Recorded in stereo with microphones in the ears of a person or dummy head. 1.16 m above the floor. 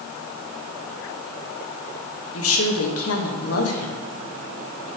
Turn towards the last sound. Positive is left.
turn(degrees=70)  # may be behind; listen again after turning